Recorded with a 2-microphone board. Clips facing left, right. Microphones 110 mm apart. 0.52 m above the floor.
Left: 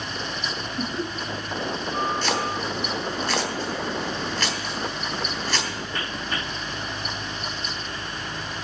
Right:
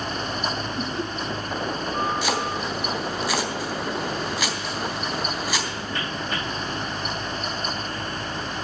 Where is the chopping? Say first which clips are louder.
Even; 10° right (ahead or behind), 3.5 m.